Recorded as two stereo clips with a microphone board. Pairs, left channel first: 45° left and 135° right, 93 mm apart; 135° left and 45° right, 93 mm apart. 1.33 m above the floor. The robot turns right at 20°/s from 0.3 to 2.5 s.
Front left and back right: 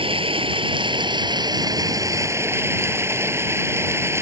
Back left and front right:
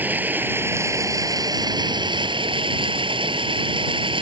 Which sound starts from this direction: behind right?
Running water, at 0.0 s.